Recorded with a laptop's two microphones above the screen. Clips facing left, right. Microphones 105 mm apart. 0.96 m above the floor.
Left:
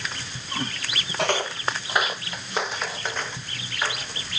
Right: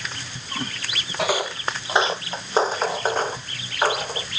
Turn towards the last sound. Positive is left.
turn(degrees=-45)  # may be behind; listen again after turning